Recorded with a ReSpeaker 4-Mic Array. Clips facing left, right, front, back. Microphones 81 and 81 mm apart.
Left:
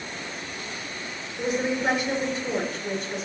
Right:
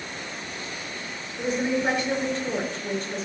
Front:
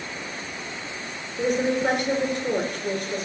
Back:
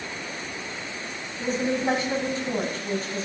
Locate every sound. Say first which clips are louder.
1.4 s a woman speaking: right 1 dB, front 3 dB; 10° left, 4 m